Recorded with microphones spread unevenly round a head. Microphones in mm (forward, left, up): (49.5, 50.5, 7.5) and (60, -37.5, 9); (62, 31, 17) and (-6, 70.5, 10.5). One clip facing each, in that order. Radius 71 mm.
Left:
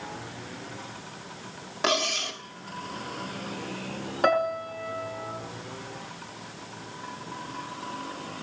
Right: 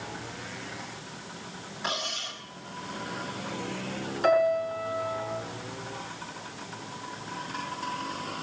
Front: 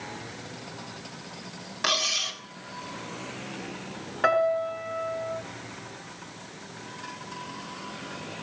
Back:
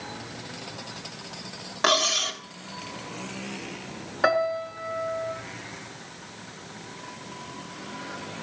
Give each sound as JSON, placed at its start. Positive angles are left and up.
{"t": 1.8, "sound": "cutlery clinking", "azimuth_deg": 100, "distance_m": 1.5}
{"t": 4.2, "sound": "a piano", "azimuth_deg": 70, "distance_m": 4.5}